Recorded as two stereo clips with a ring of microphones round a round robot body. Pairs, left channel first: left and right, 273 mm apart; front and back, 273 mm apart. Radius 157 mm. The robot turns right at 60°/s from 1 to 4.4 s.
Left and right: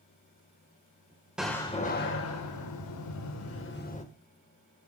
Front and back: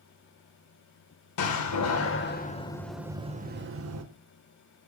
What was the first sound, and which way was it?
A door slam, 5° right.